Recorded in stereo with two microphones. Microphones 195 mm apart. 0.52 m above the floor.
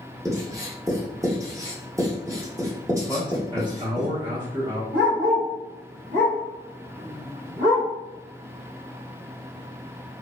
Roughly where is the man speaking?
Right.